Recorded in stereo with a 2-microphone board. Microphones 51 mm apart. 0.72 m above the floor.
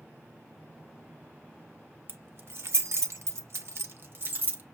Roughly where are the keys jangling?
Right.